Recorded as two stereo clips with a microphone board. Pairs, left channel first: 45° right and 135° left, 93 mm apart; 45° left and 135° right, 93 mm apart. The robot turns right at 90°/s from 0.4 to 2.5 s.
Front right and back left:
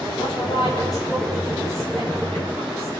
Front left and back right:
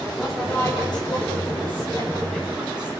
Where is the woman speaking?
45° right, 9.5 m; by 2.9 s 145° left, 9.5 m.